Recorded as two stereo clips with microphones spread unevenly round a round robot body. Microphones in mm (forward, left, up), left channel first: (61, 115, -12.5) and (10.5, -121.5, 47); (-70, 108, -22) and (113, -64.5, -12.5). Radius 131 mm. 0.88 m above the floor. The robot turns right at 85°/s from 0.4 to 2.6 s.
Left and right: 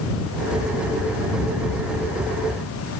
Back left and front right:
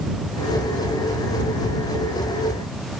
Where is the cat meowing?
I don't hear a cat meowing.